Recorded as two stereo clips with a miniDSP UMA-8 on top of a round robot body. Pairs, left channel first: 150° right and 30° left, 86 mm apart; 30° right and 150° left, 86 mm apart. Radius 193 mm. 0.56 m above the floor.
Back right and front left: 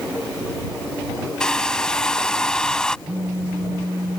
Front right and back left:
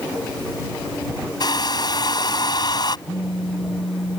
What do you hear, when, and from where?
1.4 s a hair dryer: 70° right
3.1 s a phone buzzing: 30° right